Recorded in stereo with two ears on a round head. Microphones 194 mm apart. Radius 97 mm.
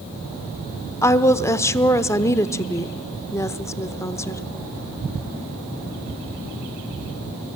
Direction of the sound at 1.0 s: 15° left (ahead or behind).